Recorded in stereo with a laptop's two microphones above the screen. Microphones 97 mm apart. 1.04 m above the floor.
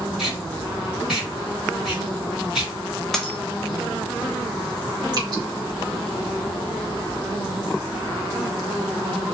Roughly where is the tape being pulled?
Centre.